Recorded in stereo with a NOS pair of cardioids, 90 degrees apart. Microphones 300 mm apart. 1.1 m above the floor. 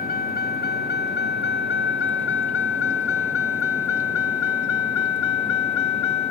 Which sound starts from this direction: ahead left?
A vehicle, at 0.0 s.